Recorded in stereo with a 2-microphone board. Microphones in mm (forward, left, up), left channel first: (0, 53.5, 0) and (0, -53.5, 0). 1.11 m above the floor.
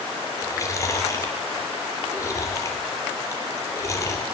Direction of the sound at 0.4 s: 30° left (ahead or behind).